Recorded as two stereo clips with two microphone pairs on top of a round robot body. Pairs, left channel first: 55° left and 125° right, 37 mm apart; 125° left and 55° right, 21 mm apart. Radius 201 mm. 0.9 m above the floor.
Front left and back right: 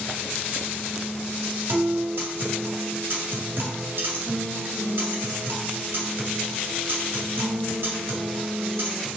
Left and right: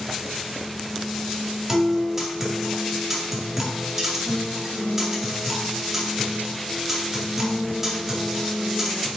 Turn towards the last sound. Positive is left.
turn(degrees=-135)